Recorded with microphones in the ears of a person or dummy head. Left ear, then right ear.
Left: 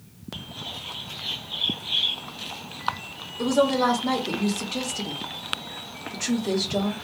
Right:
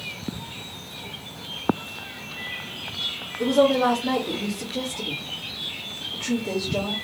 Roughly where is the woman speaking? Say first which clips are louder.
Right 2 dB; left.